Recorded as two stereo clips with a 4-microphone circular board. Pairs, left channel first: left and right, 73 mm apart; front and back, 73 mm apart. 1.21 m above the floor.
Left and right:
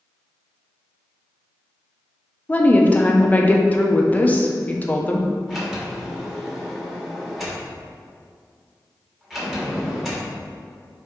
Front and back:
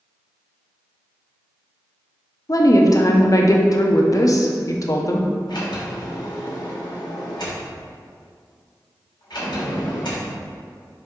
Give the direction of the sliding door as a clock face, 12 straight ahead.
12 o'clock.